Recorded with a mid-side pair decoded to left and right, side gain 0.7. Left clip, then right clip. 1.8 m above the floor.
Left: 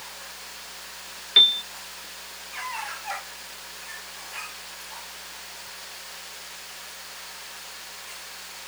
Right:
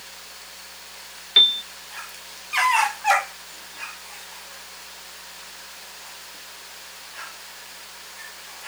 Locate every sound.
1.4 s a piano: 5° right